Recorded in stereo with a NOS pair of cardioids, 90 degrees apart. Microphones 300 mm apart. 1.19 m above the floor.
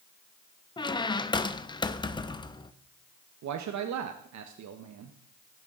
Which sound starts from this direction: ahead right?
A man speaking, at 3.4 s.